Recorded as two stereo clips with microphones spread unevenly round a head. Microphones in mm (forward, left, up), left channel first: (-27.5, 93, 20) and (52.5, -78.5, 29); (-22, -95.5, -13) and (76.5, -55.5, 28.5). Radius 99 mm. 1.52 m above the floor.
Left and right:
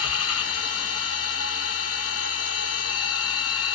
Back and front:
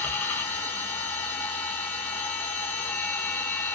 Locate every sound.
0.0 s a machine running: 115° left, 0.7 m